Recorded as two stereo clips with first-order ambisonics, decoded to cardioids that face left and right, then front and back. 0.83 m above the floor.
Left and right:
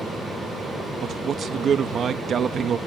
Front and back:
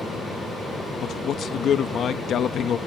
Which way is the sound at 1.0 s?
40° right.